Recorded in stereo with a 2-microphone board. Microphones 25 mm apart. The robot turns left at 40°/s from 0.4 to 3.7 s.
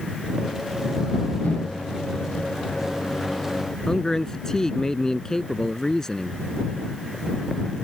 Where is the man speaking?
20° left (ahead or behind).